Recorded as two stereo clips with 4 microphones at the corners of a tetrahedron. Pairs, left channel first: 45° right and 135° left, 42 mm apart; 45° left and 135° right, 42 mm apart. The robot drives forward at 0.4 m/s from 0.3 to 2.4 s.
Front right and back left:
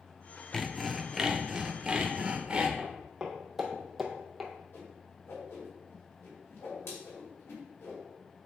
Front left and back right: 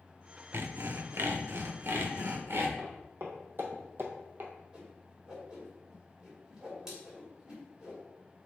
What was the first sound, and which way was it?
Sawing, 125° right.